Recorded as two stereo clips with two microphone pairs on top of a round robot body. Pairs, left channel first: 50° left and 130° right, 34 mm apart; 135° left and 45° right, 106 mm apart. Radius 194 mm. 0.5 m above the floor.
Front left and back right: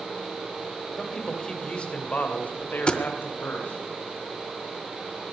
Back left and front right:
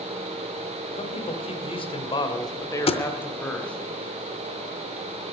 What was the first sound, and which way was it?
A man speaking, 135° left.